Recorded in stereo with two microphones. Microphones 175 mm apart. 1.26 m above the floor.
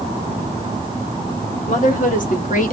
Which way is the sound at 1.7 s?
45° left (ahead or behind).